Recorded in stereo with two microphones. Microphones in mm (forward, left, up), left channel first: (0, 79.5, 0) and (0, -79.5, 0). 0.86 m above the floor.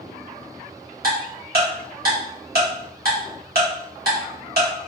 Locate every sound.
1.0 s ticking: 75° right (ahead or behind), 1.2 m